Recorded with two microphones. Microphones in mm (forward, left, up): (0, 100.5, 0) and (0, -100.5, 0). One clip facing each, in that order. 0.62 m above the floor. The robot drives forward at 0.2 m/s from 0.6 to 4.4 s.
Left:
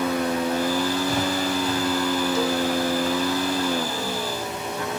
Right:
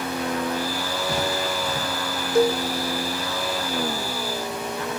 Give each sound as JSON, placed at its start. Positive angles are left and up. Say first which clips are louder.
{"t": 2.4, "sound": "a cowbell", "louder": "right 4 dB", "side_deg": -55, "distance_m": 0.5}